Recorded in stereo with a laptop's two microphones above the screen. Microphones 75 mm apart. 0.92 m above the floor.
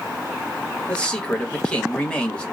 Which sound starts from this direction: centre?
A man speaking, at 0.9 s.